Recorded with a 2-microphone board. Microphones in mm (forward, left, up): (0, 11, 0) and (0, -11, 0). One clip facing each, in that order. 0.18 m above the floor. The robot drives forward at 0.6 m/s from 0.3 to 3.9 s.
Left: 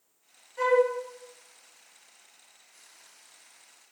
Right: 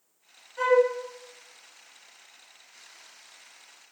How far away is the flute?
About 1.8 m.